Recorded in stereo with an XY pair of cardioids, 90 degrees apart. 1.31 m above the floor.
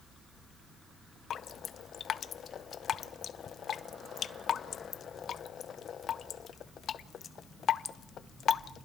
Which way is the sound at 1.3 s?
60° left.